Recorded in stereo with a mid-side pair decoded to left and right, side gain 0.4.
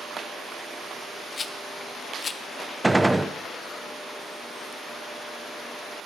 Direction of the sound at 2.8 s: 10° right.